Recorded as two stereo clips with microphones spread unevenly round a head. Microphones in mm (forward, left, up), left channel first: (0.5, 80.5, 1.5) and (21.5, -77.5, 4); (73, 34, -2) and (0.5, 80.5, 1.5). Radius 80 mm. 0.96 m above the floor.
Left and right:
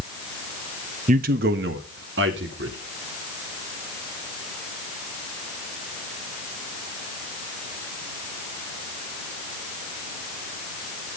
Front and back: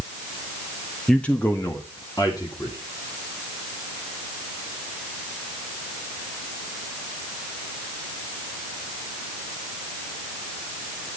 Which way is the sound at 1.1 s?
115° right.